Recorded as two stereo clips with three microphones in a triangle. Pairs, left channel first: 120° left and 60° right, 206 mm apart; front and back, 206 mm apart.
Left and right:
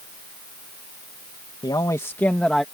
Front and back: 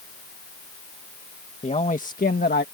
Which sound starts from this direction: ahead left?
A man speaking, at 1.6 s.